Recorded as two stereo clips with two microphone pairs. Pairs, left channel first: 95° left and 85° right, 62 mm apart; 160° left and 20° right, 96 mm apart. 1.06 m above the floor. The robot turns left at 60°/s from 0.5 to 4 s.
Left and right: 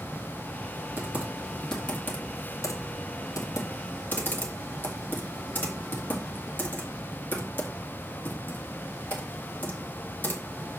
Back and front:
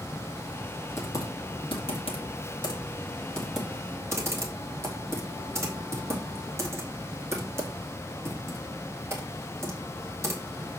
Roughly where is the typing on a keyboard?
Behind right.